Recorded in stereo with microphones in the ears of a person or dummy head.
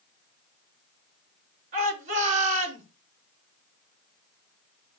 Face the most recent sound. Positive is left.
turn(degrees=-45)  # may be behind; listen again after turning